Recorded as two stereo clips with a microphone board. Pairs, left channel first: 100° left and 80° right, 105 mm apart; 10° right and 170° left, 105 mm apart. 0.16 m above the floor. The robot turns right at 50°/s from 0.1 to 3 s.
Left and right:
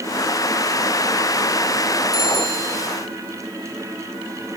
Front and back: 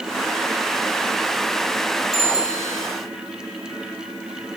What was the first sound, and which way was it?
A bicycle bell, 75° right.